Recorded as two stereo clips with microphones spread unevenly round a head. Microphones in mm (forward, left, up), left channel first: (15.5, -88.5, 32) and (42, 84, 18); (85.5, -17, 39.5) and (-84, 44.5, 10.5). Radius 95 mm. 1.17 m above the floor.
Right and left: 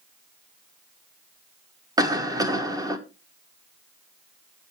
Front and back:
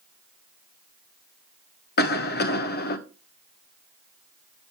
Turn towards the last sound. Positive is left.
turn(degrees=15)